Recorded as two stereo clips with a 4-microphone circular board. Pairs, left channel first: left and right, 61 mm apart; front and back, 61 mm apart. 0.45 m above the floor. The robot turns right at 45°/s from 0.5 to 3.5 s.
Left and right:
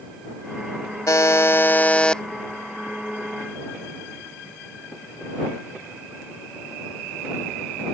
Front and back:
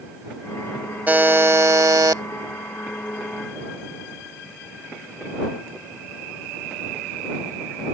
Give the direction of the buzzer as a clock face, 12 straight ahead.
8 o'clock.